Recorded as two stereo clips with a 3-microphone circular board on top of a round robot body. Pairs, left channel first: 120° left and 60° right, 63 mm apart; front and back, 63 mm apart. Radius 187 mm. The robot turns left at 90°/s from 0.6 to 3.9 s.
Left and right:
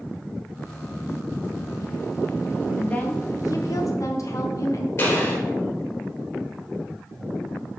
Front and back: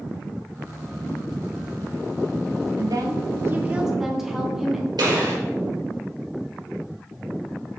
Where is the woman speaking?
160° right, 1.5 m; by 4.9 s 95° left, 1.5 m.